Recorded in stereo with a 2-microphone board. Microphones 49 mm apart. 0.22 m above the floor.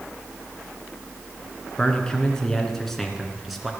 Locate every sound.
1.8 s a man speaking: 15° left (ahead or behind), 2.5 m; by 3.7 s 5° right (ahead or behind), 3 m